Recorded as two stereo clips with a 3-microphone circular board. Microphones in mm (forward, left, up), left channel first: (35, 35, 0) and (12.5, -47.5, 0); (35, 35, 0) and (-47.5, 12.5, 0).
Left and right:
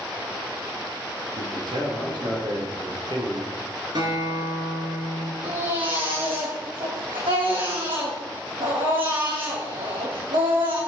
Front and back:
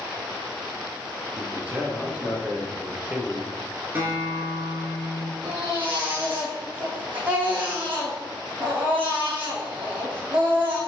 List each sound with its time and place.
1.4 s a man speaking: 90° right, 3 m
4.0 s a guitar: 100° right, 2.5 m
5.4 s a baby crying: 100° right, 4 m